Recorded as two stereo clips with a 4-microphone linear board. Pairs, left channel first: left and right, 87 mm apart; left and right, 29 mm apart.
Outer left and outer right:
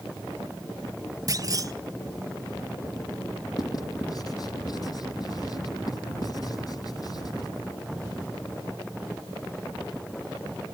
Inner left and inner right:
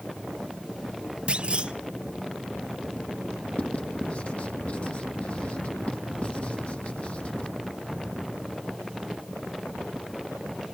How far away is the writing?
About 1.7 m.